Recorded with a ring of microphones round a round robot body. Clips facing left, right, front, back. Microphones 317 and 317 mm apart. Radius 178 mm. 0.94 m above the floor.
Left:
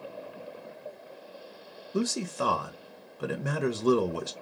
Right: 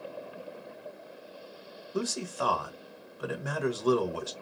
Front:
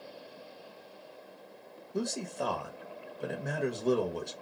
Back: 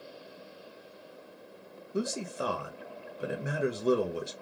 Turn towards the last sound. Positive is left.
turn(degrees=105)